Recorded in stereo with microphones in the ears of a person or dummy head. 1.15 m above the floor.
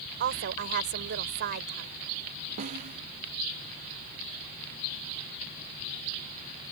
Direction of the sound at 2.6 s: 40° right (ahead or behind).